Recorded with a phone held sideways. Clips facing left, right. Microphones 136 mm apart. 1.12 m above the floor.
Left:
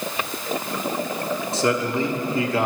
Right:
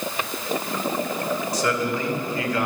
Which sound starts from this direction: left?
A man speaking, at 1.5 s.